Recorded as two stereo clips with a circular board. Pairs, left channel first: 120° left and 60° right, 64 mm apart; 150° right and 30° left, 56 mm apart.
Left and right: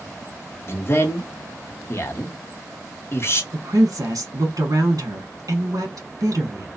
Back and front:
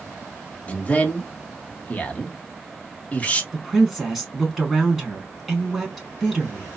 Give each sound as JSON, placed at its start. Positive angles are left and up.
{"t": 0.7, "sound": "a man speaking", "azimuth_deg": 155, "distance_m": 0.9}
{"t": 3.5, "sound": "a woman speaking", "azimuth_deg": -65, "distance_m": 1.3}